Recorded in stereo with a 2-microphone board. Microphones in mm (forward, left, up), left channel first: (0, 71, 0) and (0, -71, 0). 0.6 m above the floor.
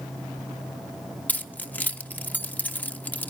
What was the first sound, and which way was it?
Keys jangling, 10° left (ahead or behind).